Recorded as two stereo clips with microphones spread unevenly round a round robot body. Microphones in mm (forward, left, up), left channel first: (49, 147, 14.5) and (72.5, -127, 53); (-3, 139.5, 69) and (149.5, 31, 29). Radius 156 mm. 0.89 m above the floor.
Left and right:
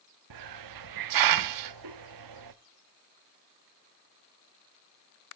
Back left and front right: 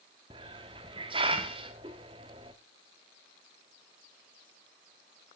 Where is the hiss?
110° right, 0.7 m.